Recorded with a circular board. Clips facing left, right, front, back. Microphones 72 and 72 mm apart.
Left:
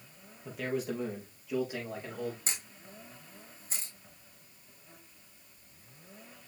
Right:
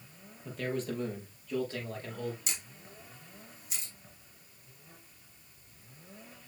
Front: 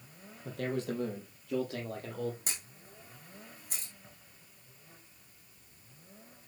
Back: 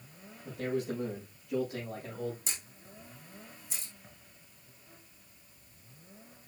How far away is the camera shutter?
About 4 m.